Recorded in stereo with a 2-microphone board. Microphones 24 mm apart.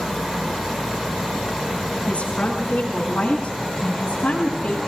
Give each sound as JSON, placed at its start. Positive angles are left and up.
{"t": 2.1, "sound": "a woman speaking", "side_deg": 80, "distance_m": 8.5}